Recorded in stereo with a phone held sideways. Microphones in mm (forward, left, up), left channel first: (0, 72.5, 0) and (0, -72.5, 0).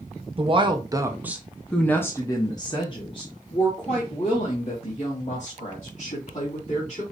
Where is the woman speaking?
40° right (ahead or behind), 1.0 m; by 7.0 s 50° left (ahead or behind), 3.5 m.